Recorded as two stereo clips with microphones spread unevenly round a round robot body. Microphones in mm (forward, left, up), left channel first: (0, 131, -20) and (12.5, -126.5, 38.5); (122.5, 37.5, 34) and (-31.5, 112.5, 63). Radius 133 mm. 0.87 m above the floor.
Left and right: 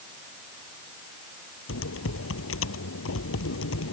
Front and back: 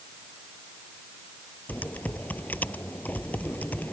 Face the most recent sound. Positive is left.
turn(degrees=55)